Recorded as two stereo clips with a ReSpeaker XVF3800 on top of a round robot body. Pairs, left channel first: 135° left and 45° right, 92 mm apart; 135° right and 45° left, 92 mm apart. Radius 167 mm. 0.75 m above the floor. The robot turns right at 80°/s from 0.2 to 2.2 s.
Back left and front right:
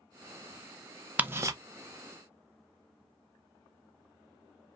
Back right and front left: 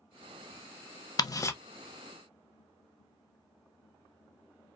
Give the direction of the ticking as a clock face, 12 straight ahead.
4 o'clock.